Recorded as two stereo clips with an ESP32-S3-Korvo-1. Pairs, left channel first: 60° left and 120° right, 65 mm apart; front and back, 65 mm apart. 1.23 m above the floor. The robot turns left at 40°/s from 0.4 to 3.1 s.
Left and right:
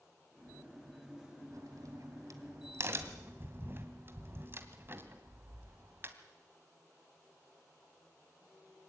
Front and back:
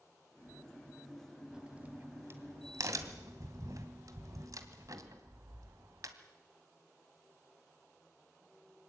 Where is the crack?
105° right, 2 m; by 6.2 s 165° right, 2 m.